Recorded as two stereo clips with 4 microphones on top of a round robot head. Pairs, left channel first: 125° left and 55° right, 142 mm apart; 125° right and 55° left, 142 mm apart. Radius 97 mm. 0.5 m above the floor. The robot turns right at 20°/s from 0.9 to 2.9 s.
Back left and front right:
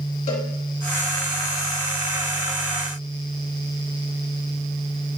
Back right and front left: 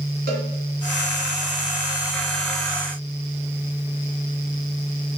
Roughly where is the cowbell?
Left.